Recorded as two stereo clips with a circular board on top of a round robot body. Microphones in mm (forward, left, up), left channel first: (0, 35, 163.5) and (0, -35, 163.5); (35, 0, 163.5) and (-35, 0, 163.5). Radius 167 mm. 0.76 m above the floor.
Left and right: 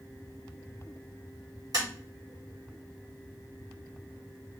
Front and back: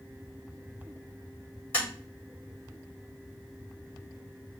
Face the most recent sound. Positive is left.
turn(degrees=-65)